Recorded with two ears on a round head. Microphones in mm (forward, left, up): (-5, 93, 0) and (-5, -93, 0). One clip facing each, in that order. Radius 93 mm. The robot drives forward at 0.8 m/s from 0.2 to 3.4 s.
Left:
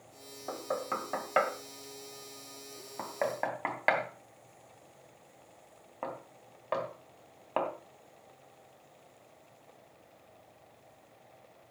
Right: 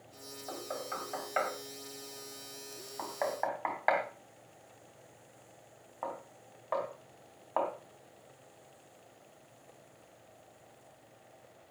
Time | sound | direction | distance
0.5 | knocking | 60° left (ahead or behind) | 1.9 m